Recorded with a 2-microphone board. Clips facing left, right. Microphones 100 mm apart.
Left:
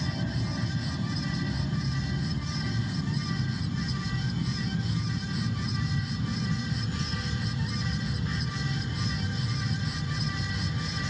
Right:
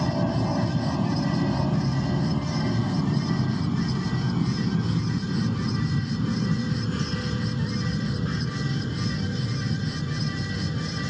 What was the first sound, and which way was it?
An aircraft, 60° right (ahead or behind).